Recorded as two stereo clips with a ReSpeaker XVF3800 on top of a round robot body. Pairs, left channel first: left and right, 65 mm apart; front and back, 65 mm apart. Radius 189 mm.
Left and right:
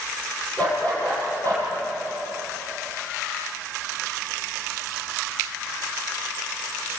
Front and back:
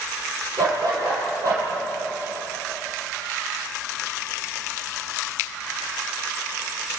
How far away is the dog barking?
About 7 m.